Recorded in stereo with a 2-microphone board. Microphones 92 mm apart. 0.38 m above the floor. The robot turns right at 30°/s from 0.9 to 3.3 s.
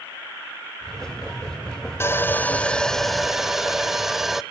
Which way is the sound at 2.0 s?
145° left.